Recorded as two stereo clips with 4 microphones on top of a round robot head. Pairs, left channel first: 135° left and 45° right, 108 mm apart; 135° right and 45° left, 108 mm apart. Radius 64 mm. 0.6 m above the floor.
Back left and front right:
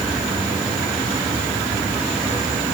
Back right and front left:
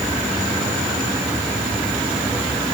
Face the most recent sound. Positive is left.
No sound to turn to.